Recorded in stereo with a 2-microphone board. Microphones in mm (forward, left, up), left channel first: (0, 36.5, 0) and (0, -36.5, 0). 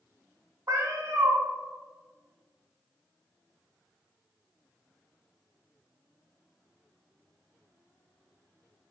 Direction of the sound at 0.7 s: 45° right (ahead or behind).